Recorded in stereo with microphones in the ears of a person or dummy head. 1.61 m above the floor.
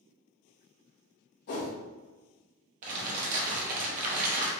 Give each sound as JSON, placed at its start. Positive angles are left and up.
{"t": 1.5, "sound": "a whoosh", "side_deg": 50, "distance_m": 0.8}
{"t": 2.8, "sound": "crumpling", "side_deg": -45, "distance_m": 0.8}